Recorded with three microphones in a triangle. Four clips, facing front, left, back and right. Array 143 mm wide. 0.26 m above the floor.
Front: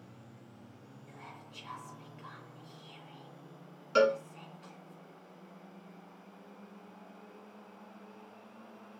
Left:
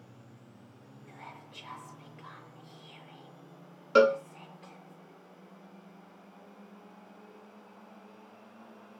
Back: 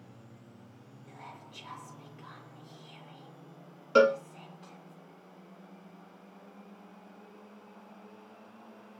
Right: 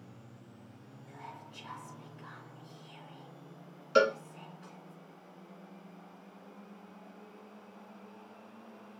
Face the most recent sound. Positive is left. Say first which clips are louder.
# left 4 dB, back 4 dB
turn(degrees=120)